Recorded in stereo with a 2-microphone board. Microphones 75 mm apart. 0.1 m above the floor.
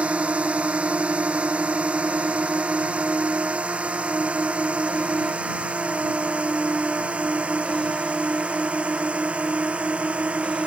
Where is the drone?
15° right (ahead or behind).